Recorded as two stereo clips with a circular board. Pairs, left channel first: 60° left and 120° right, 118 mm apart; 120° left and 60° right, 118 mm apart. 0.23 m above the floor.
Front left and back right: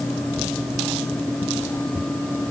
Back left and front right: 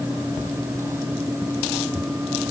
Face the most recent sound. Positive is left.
No sound to turn to.